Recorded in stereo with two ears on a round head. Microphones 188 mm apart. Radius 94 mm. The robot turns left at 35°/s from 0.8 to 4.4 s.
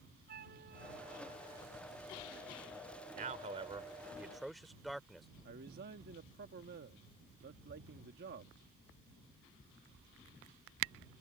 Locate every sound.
0.3 s a flute: 130° right; by 1.7 s 165° right
3.1 s a man speaking: 45° right (ahead or behind); by 5.3 s centre (ahead or behind)
5.5 s a man speaking: 50° right (ahead or behind)